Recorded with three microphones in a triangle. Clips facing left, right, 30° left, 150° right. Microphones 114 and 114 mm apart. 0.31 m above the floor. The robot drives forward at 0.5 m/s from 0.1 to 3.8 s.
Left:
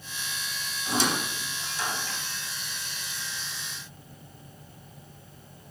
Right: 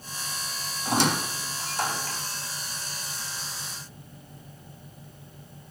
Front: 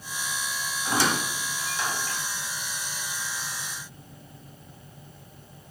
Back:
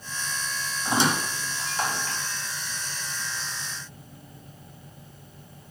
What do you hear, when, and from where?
0.8 s a squeak: 80° right, 1.0 m; by 2.2 s 125° right, 1.1 m